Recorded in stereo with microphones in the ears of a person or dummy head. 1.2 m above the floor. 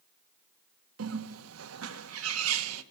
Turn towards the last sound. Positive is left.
turn(degrees=-85)